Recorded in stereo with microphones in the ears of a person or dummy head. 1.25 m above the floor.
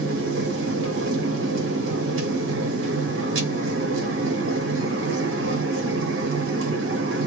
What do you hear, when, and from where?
0.0 s a machine running: 65° right (ahead or behind), 0.8 m